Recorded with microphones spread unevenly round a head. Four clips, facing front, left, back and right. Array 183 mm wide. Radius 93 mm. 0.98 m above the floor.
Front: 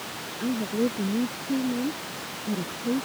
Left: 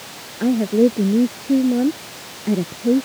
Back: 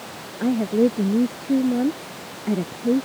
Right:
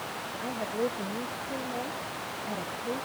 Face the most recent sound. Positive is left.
turn(degrees=120)